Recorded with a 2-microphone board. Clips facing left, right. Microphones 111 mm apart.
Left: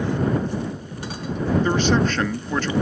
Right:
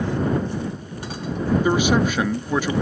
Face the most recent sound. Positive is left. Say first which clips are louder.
# right 2 dB
turn(degrees=-10)  # may be behind; listen again after turning